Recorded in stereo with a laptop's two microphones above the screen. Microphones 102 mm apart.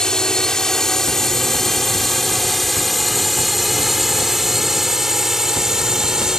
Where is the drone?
5° left (ahead or behind); by 6.4 s 5° right (ahead or behind).